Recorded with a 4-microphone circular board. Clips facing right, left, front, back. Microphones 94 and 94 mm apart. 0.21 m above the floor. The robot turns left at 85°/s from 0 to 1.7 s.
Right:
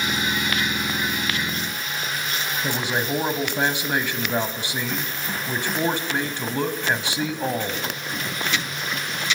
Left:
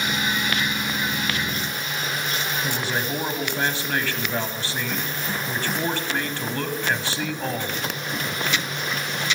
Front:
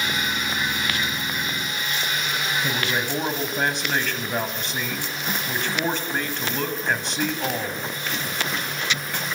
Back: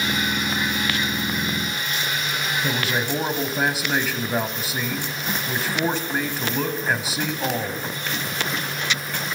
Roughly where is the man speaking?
Right.